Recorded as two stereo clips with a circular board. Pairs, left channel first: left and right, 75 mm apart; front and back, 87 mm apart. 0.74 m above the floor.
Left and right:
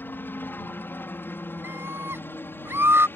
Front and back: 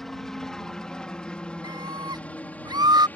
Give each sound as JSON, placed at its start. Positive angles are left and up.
{"t": 0.0, "sound": "a helicopter", "azimuth_deg": 80}
{"t": 1.6, "sound": "a scream", "azimuth_deg": -145}